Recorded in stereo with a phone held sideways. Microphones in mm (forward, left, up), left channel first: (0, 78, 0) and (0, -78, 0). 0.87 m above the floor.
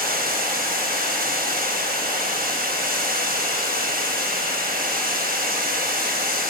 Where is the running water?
65° right (ahead or behind), 4 m.